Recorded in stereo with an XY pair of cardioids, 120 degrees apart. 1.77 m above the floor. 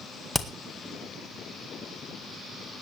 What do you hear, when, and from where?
0.3 s hammering: straight ahead, 1.7 m